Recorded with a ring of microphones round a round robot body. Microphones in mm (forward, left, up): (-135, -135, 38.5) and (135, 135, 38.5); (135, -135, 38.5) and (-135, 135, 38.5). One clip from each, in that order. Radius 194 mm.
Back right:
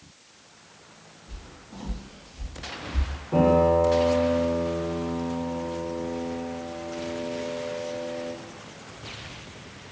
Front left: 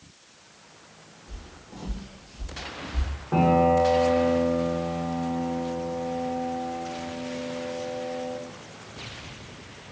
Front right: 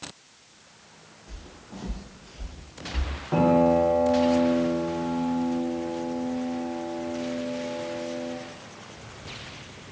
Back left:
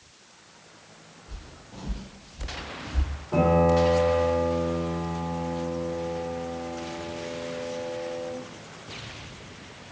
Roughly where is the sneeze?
I don't hear a sneeze.